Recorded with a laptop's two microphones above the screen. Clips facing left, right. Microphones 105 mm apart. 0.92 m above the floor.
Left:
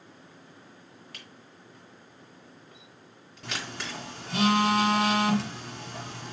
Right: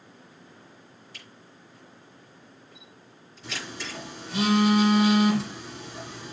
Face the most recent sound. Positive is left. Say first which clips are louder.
# even
turn(degrees=75)  # may be behind; listen again after turning